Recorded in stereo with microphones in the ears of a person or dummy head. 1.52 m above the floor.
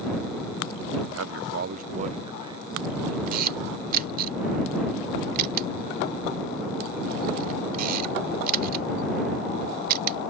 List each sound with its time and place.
1.1 s a man speaking: 85° right; by 3.2 s 25° right (ahead or behind)
3.3 s a camera shutter: 45° right (ahead or behind)